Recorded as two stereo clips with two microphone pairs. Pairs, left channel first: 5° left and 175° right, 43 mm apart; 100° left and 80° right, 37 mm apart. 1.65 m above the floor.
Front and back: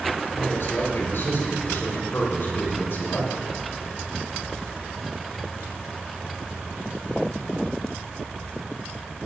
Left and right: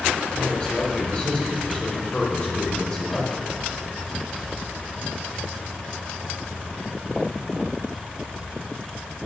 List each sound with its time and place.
0.3 s a man speaking: 40° left, 5 m